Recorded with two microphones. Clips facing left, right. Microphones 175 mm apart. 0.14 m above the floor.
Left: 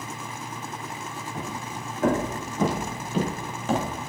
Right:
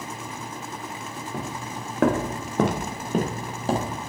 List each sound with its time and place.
1.3 s footsteps: 75° right (ahead or behind), 3 m; by 4.1 s 25° right (ahead or behind), 3 m